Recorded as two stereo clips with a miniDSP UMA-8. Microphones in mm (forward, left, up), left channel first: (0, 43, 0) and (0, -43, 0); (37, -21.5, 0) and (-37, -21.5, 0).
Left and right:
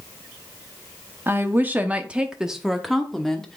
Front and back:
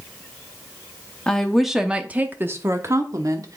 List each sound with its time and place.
1.3 s a woman speaking: 65° right, 0.9 m; by 3.6 s 175° left, 1.3 m